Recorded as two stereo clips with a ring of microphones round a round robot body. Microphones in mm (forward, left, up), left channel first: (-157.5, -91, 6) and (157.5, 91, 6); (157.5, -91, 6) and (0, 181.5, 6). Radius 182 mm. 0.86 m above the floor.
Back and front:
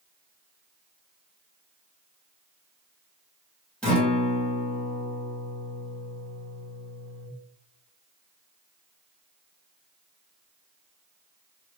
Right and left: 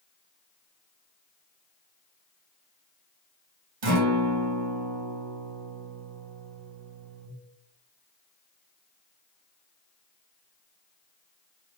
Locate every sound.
3.8 s a guitar: 125° left, 1.5 m